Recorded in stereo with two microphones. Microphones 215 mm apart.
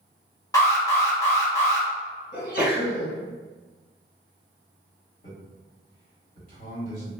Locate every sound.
0.5 s an alarm: 15° left (ahead or behind), 1.0 m
2.3 s a sneeze: 50° left (ahead or behind), 1.7 m
5.2 s a man speaking: 40° left (ahead or behind), 1.6 m